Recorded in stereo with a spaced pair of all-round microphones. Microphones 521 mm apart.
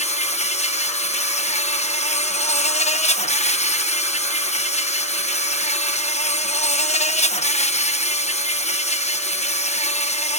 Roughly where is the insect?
Centre.